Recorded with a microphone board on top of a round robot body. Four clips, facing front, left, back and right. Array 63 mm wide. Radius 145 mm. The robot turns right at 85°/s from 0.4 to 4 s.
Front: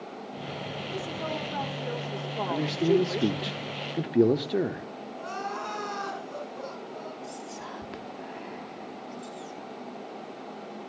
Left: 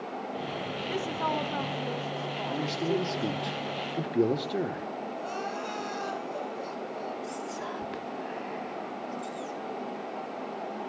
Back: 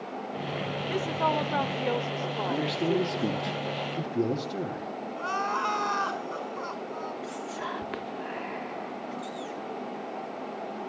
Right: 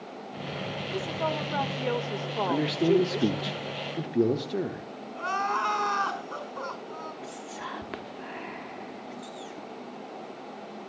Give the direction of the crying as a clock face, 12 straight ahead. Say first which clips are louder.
Right 11 dB, back 5 dB; 4 o'clock.